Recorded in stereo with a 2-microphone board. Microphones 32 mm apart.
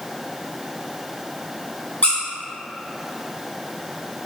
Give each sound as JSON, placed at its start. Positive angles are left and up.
{"t": 2.0, "sound": "a squeak", "side_deg": 45, "distance_m": 0.8}